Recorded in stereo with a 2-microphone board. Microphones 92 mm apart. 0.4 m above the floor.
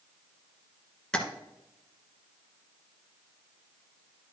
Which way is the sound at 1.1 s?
10° left (ahead or behind).